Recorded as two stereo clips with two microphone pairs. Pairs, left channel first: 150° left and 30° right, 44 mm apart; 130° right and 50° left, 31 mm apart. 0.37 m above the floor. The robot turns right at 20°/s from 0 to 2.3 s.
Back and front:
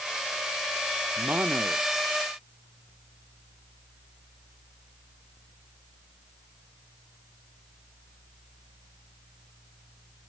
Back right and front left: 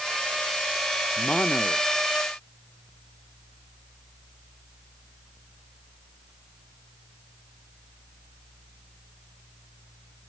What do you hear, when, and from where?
1.2 s a man speaking: 80° right; by 1.9 s 65° right